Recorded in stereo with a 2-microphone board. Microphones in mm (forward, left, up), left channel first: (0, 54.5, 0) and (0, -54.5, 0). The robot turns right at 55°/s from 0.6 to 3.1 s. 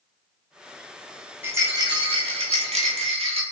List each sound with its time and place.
1.4 s a rattle: 160° right, 0.7 m; by 3.4 s 70° right, 0.7 m